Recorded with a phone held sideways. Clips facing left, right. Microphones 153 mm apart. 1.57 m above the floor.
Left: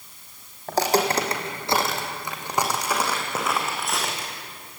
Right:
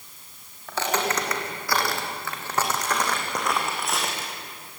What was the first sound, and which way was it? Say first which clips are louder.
Footsteps: left 5 dB; 45° left (ahead or behind).